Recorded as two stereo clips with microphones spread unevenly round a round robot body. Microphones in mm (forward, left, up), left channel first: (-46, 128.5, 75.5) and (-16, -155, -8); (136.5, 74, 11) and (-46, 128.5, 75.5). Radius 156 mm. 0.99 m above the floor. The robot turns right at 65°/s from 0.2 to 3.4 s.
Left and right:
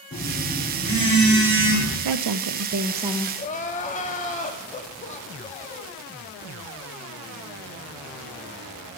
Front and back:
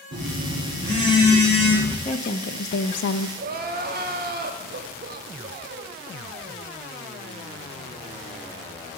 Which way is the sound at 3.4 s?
165° left.